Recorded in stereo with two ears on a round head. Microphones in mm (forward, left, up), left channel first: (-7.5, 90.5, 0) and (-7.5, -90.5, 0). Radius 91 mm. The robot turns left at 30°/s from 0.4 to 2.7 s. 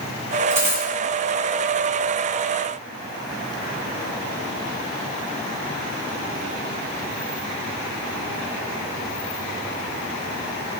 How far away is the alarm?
I don't hear an alarm.